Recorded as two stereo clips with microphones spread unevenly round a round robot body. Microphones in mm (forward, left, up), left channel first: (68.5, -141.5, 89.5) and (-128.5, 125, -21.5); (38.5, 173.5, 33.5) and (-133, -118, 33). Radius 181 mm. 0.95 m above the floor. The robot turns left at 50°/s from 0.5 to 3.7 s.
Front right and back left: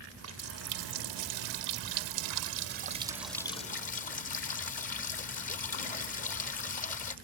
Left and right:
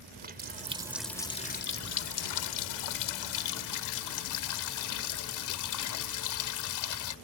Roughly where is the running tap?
Behind.